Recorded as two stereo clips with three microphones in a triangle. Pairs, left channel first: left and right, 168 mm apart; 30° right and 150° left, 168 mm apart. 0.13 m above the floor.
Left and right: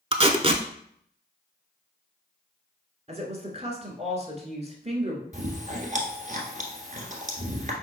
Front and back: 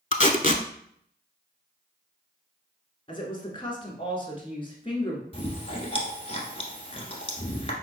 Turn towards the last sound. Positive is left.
turn(degrees=-70)